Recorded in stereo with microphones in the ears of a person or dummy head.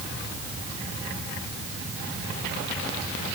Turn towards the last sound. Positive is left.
No sound to turn to.